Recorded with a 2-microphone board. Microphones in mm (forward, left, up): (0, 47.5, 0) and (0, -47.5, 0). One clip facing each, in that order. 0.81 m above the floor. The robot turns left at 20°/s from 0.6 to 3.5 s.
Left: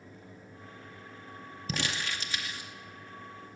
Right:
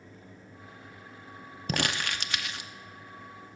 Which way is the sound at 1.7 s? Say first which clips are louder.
Right 4 dB; 55° right (ahead or behind).